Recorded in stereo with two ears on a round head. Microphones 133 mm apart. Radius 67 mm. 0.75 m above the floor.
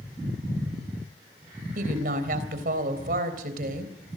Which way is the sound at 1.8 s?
65° right (ahead or behind).